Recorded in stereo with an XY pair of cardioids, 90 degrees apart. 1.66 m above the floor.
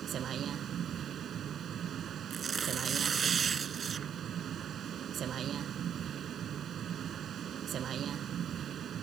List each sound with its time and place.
0.0 s a vehicle: 65° right
2.3 s tearing paper: 45° right